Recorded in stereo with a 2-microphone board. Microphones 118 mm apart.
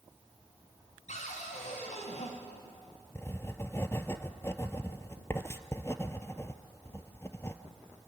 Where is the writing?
20° left (ahead or behind), 0.9 m.